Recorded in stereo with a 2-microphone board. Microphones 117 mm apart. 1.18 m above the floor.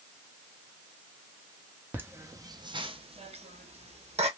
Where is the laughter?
15° right (ahead or behind), 0.8 m; by 4.3 s 60° right (ahead or behind), 1.0 m.